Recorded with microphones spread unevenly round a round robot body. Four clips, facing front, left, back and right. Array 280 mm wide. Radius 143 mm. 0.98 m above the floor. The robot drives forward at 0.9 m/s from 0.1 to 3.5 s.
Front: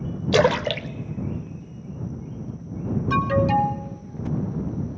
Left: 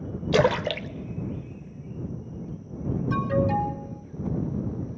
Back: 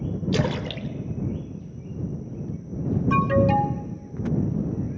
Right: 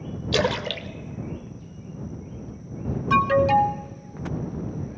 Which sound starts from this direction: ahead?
A splash, at 0.3 s.